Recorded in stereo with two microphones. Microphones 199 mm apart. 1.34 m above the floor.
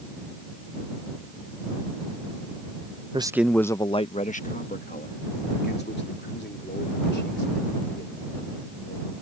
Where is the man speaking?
25° right (ahead or behind); by 9.1 s 60° left (ahead or behind).